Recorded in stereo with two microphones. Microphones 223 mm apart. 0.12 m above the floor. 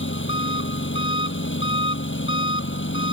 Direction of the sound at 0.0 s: 60° left (ahead or behind).